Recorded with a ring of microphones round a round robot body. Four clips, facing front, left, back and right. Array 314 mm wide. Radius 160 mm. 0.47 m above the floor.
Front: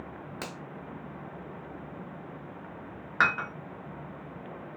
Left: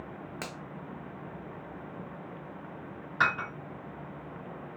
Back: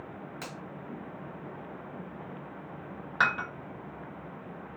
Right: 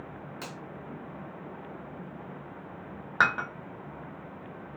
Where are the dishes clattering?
75° right, 1.3 m.